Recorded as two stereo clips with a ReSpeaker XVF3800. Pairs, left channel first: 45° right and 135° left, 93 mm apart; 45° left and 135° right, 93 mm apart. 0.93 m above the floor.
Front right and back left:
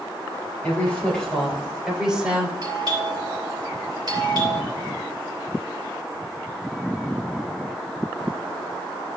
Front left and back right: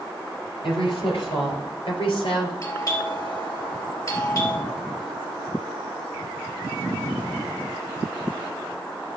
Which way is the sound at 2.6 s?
95° left.